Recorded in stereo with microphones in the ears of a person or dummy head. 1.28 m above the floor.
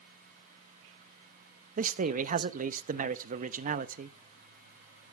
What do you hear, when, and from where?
1.8 s a man speaking: 45° right (ahead or behind), 0.7 m